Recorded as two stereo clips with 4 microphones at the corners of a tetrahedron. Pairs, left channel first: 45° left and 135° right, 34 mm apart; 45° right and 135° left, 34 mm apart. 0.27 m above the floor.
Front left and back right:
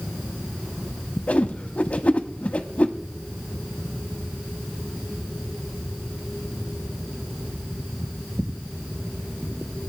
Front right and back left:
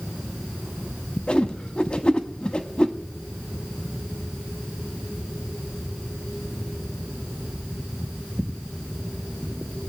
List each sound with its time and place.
1.3 s a whoosh: 10° left, 0.8 m